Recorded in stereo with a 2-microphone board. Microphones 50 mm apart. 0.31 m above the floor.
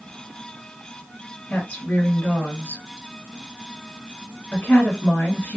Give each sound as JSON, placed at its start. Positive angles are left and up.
{"t": 1.5, "sound": "a woman speaking", "side_deg": 35, "distance_m": 1.5}